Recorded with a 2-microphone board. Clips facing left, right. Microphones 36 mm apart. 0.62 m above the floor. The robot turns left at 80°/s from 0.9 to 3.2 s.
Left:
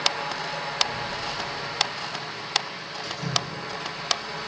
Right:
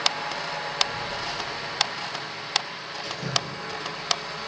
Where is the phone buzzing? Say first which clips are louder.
Even; 20° right (ahead or behind), 4 m; by 2.6 s 65° left (ahead or behind), 4 m.